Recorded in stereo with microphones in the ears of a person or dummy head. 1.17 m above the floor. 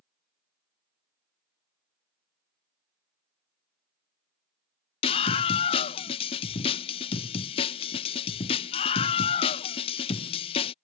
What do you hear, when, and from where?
5.0 s a scream: 30° left (ahead or behind)